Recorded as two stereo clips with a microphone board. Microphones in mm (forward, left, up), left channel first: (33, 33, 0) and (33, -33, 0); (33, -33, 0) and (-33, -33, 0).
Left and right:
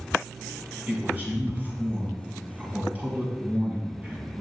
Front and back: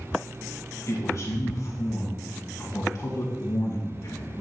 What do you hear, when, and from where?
0.9 s a man speaking: 30° right, 2.5 m